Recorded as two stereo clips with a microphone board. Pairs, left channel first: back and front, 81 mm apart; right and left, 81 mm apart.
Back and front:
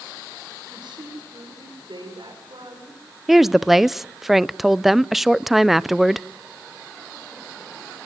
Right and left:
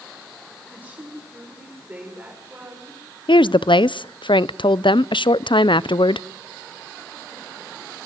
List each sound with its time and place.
0.7 s a woman speaking: 20° left, 6 m
3.3 s a woman speaking: 85° right, 0.5 m